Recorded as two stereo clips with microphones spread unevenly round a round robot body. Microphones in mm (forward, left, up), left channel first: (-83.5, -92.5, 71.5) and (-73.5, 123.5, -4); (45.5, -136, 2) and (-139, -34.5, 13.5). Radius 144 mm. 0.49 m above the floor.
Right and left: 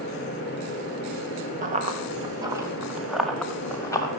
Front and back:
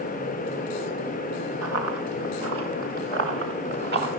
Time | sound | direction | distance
1.6 | running footsteps | 145° left | 4 m